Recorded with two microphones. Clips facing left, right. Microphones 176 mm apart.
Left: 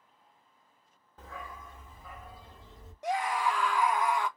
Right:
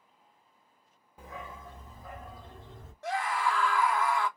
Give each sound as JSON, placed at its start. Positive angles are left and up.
{"t": 1.2, "sound": "a dog barking", "side_deg": -10, "distance_m": 0.7}
{"t": 3.0, "sound": "a scream", "side_deg": 15, "distance_m": 0.6}